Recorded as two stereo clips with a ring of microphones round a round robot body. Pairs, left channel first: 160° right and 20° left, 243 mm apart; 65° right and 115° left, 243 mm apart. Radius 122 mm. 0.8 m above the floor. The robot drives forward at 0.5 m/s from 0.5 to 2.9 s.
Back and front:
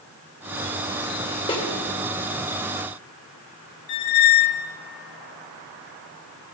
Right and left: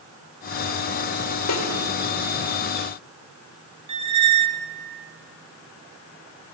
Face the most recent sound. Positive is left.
turn(degrees=180)